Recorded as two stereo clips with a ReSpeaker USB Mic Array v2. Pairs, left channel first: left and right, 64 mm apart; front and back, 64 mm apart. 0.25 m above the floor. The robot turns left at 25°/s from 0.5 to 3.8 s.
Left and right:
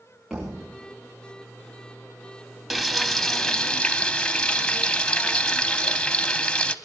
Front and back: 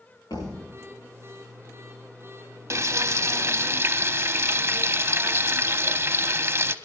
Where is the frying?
175° right, 0.6 m; by 6.8 s 155° left, 0.6 m.